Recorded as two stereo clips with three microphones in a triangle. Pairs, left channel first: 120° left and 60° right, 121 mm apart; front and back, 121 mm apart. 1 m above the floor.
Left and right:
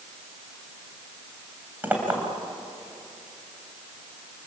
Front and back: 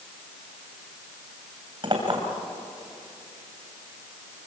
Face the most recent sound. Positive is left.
turn(degrees=-135)